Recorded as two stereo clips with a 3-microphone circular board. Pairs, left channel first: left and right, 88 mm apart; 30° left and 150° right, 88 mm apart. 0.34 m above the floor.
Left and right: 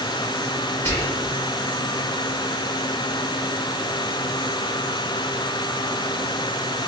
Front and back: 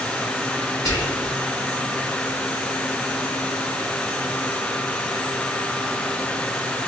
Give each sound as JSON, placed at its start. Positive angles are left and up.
{"t": 0.8, "sound": "whispering", "azimuth_deg": 45, "distance_m": 1.7}